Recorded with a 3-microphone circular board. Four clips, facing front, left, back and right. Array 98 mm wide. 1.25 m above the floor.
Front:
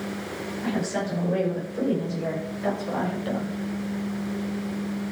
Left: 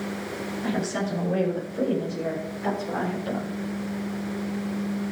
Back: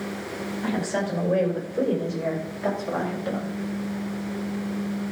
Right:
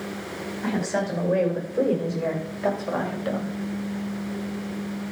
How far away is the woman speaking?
About 5.5 m.